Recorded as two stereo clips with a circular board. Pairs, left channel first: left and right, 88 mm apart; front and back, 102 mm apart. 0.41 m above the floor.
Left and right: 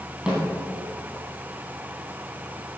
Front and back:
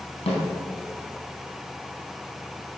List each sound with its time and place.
0.3 s a snare drum: 5° right, 3.5 m